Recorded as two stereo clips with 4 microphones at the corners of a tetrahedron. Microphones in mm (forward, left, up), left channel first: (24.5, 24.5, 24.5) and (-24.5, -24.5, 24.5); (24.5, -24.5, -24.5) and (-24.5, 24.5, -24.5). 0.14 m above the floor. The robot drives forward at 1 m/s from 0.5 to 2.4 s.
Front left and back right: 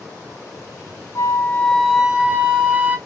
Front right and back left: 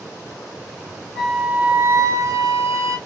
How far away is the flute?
About 0.7 m.